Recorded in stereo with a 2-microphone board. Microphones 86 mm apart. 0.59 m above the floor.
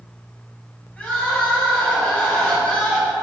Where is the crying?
20° left (ahead or behind), 4.5 m.